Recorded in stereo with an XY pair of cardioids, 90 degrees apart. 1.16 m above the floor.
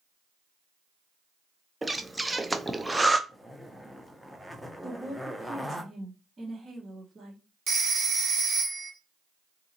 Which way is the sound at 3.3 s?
Straight ahead.